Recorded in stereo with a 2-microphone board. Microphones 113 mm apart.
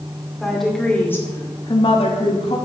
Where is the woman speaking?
Centre (ahead or behind), 2 m; by 2.6 s 55° left (ahead or behind), 1.8 m.